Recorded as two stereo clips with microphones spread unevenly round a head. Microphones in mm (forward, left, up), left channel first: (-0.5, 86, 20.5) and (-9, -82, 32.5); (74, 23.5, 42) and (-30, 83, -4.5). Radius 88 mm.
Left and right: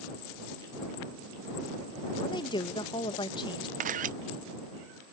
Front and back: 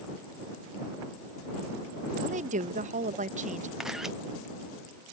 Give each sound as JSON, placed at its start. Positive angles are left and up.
{"t": 2.2, "sound": "a woman speaking", "azimuth_deg": 150}
{"t": 3.8, "sound": "a camera shutter", "azimuth_deg": -135}